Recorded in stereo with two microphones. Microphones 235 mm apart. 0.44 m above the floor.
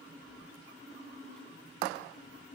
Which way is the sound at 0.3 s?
5° left (ahead or behind).